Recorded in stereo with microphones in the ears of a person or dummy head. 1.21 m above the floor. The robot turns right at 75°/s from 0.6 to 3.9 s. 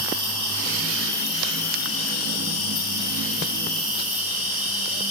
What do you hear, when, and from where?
0.0 s an insect: 60° right, 2.5 m; by 5.1 s 170° right, 2.5 m